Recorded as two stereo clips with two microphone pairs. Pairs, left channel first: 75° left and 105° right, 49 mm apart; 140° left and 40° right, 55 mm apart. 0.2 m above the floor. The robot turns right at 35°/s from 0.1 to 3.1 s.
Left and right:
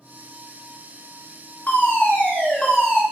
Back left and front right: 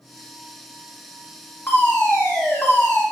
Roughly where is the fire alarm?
Left.